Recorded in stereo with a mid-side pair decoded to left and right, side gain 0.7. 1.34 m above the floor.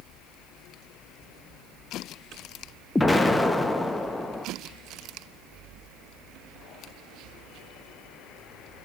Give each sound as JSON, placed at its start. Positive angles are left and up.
{"t": 3.0, "sound": "an explosion", "azimuth_deg": 15, "distance_m": 0.8}